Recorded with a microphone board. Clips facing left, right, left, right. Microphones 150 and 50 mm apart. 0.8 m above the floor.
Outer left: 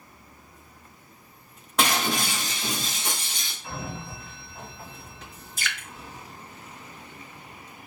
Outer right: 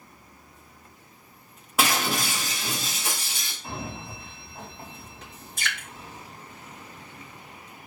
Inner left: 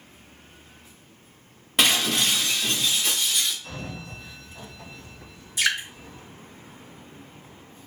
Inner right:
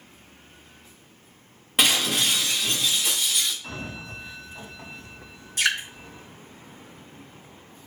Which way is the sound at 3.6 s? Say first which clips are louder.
Even, inner right 1 dB; 30° right (ahead or behind).